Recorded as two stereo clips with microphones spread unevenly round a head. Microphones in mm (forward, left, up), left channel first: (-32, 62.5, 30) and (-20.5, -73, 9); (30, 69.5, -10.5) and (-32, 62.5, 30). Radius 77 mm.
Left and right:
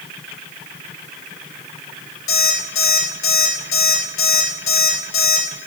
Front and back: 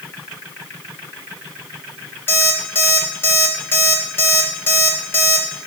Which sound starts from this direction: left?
An alarm clock, at 2.3 s.